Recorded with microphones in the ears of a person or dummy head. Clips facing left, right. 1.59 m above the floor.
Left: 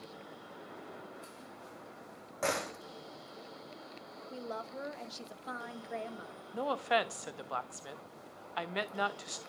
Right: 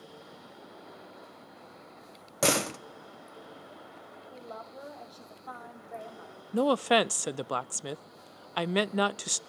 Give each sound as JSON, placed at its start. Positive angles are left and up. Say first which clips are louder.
{"t": 2.4, "sound": "a door slam", "louder": "right 7 dB", "side_deg": -50, "distance_m": 0.7}
{"t": 4.3, "sound": "a woman speaking", "louder": "left 3 dB", "side_deg": 30, "distance_m": 2.5}
{"t": 6.5, "sound": "a woman speaking", "louder": "right 8 dB", "side_deg": -55, "distance_m": 0.5}